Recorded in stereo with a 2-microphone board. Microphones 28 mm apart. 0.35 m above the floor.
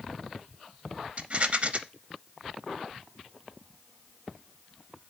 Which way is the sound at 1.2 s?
45° right (ahead or behind).